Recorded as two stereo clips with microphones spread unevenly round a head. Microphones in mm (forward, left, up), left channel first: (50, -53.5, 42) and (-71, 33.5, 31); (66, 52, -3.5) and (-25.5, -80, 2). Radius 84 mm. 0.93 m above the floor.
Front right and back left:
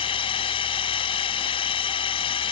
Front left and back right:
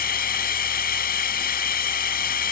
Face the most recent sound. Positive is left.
turn(degrees=25)